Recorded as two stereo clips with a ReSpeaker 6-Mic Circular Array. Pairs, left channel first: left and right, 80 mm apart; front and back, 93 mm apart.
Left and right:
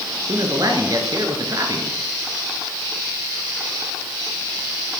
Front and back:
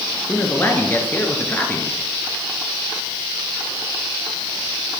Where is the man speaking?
65° right, 2.5 m.